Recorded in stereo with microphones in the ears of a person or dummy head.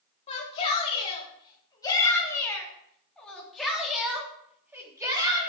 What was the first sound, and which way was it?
A shout, 35° left (ahead or behind).